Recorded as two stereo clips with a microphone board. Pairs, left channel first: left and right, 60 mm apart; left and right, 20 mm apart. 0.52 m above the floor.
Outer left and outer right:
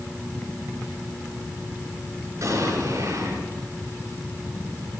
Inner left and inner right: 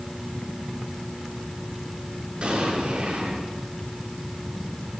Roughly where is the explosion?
Right.